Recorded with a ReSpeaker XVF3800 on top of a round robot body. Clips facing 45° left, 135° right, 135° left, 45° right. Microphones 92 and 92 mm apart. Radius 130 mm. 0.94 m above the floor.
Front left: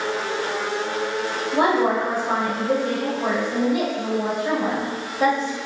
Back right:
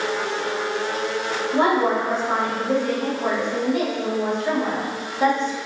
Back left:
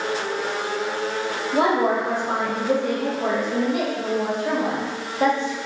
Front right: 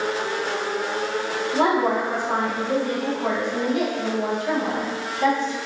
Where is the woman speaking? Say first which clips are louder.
Even, back left 1 dB; 125° left, 1.4 m.